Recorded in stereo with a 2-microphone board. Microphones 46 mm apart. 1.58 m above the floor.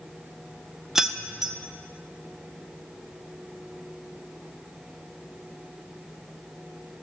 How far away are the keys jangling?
About 0.7 m.